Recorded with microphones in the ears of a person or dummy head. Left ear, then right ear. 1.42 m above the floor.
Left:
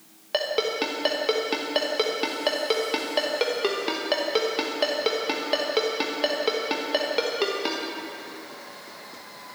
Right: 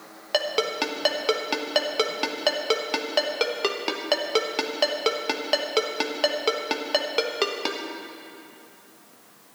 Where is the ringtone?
20° right (ahead or behind), 1.1 m.